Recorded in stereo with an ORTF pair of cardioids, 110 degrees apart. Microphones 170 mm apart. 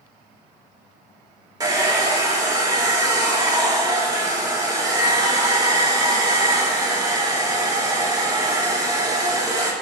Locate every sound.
1.6 s a hair dryer: 20° right, 1.8 m